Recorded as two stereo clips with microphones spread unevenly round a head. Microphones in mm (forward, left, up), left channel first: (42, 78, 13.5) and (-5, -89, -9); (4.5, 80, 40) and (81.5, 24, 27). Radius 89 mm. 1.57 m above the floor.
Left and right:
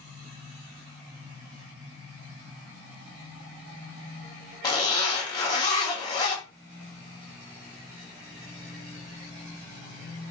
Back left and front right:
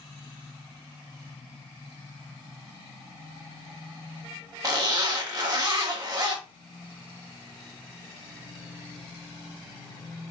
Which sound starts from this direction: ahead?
A zipper, at 4.6 s.